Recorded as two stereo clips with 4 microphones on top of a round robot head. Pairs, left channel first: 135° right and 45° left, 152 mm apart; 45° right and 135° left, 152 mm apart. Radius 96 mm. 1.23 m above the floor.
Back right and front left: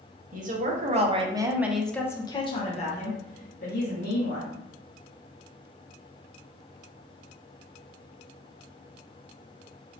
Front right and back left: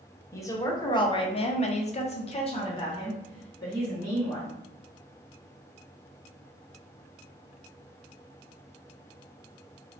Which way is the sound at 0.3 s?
25° left.